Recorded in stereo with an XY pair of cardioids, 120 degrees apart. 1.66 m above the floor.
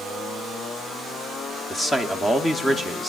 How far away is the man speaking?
About 0.9 m.